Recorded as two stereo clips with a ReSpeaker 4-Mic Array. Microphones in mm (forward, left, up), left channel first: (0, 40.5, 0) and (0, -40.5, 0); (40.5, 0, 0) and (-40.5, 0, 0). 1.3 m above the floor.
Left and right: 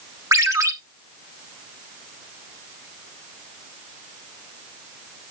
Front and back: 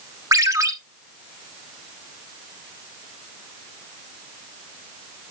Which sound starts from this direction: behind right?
A ringtone, at 0.3 s.